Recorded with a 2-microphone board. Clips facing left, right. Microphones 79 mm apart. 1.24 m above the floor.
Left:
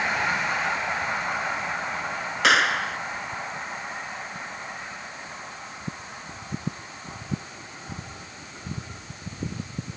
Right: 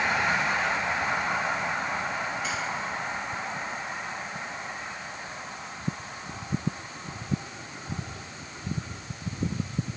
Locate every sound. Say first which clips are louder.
2.4 s a clap: left 9 dB; 75° left (ahead or behind)